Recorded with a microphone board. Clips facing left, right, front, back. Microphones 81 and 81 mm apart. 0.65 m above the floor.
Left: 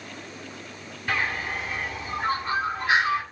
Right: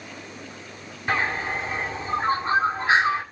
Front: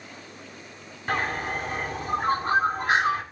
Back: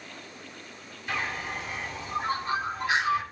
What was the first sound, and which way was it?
A bird, 35° right.